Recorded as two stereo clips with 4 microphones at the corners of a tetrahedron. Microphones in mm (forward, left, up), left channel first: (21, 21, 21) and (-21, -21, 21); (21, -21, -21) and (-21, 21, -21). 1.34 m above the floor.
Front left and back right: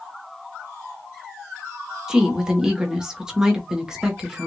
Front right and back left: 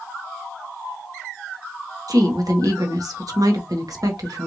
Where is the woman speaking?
145° left, 1.5 m.